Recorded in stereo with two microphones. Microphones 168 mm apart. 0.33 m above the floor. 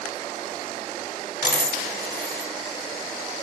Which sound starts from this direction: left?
A dropped coin, at 1.4 s.